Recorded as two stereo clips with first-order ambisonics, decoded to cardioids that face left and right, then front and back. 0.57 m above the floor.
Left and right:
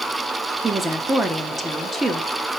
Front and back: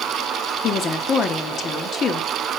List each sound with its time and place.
0.6 s a woman speaking: 20° right, 1.0 m